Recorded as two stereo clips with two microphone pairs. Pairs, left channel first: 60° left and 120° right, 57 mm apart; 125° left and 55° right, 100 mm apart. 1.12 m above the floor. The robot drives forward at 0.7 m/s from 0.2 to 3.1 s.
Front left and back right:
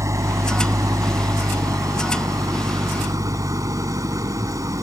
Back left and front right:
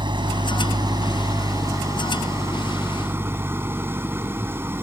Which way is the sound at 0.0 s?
95° right.